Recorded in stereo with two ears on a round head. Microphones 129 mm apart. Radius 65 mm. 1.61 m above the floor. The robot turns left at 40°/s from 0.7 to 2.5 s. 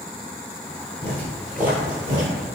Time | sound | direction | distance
1.0 | footsteps | 20° left (ahead or behind) | 1.7 m